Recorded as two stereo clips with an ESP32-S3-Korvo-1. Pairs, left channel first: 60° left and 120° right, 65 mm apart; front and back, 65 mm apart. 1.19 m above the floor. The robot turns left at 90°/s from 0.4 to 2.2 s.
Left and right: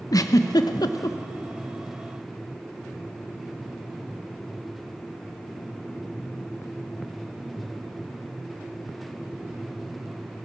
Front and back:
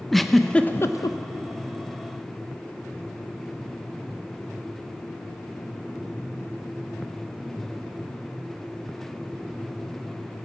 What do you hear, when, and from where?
0.1 s a giggle: 90° left, 0.6 m; by 1.2 s 20° left, 0.6 m